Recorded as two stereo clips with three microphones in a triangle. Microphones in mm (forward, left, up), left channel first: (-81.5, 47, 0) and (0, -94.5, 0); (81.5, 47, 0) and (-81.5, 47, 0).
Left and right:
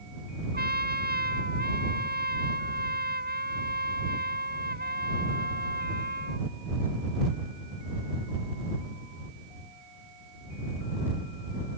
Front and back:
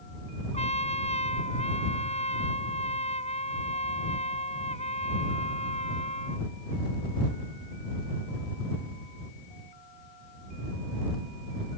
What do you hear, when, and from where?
0.5 s a trumpet: 50° right